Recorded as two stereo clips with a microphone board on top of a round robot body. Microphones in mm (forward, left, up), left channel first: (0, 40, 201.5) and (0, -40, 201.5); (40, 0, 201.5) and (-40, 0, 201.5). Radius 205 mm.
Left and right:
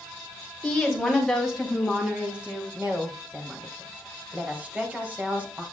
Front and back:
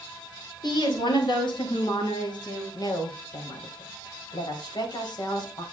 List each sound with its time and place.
0.6 s a woman speaking: 5° left, 4 m; by 2.6 s 15° right, 5 m
2.7 s a woman speaking: 20° right, 3 m